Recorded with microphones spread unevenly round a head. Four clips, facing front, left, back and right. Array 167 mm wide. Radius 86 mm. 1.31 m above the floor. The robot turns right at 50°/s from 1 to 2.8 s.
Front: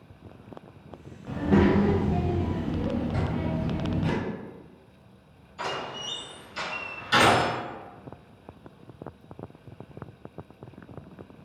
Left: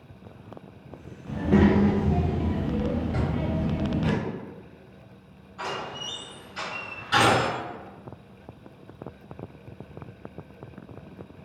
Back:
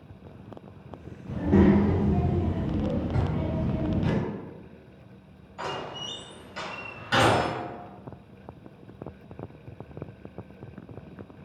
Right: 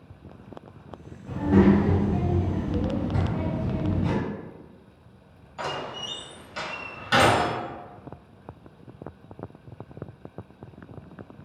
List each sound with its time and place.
1.3 s a child speaking: 10° left, 0.8 m; by 4.1 s 90° left, 0.8 m
3.1 s a drawer: 130° left, 0.9 m
5.6 s a door slam: 105° right, 0.8 m